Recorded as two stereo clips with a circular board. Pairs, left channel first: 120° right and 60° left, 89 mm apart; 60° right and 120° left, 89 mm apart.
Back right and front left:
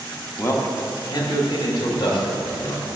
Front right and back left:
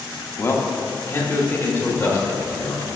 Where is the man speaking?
85° right, 0.7 m; by 2.9 s 125° right, 1.9 m.